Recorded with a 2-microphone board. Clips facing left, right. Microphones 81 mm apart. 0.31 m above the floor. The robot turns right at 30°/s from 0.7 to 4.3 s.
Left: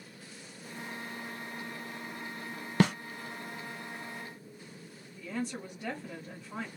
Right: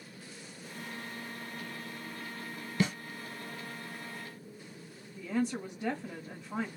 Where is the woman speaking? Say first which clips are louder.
Right 4 dB; 20° right (ahead or behind), 1.4 m.